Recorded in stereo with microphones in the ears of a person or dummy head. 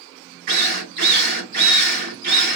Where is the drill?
60° right (ahead or behind), 3 m.